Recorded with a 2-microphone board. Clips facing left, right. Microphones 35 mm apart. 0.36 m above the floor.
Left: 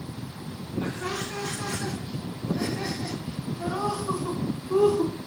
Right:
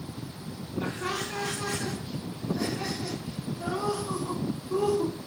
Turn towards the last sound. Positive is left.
turn(degrees=35)  # may be behind; listen again after turning